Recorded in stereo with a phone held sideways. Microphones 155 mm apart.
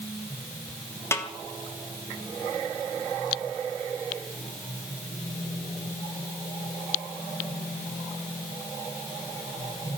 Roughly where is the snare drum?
Centre.